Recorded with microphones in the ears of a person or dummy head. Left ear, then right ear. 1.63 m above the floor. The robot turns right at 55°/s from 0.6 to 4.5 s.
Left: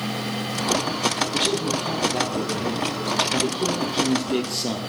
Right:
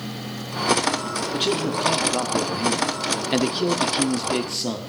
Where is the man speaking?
Straight behind, 0.5 m; by 4.8 s 5° right, 0.5 m.